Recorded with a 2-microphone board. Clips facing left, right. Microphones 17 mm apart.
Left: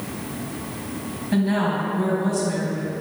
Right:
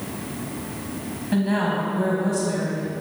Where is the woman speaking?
5° right (ahead or behind), 1.4 m.